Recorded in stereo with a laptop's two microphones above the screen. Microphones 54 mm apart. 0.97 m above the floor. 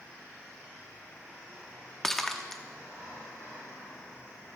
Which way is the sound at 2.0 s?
5° left (ahead or behind).